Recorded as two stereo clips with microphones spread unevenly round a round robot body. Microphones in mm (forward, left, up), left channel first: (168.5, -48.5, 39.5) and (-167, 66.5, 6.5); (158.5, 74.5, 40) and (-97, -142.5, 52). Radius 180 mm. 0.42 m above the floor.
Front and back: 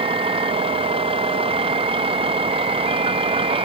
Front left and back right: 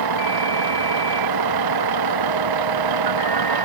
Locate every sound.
0.0 s a vehicle: 125° right